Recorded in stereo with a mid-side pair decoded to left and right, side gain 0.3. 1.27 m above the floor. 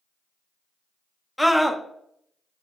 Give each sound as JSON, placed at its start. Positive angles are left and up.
{"t": 1.4, "sound": "a scream", "azimuth_deg": 5, "distance_m": 1.0}